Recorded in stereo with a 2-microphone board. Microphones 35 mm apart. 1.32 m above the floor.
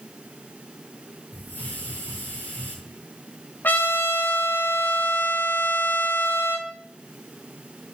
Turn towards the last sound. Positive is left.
turn(degrees=75)  # may be behind; listen again after turning